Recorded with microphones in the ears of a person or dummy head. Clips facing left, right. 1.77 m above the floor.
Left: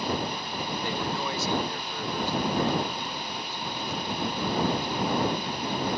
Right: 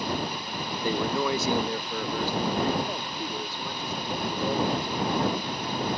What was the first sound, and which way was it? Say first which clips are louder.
A man speaking: right 8 dB; 75° right (ahead or behind).